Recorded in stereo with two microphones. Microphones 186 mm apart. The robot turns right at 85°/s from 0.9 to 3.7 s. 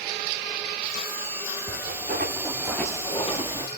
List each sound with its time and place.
1.7 s footsteps: 75° right (ahead or behind), 2 m; by 3.7 s 20° left (ahead or behind), 0.5 m